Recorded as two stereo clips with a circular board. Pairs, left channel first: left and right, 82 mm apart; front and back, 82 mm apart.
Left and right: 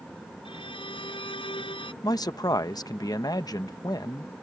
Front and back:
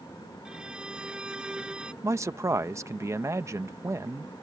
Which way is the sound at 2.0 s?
130° left.